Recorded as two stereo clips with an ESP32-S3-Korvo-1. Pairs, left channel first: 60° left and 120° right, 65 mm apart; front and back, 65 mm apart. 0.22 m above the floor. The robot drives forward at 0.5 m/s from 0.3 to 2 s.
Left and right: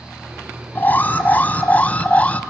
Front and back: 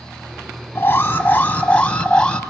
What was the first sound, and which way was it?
An alarm, 20° left.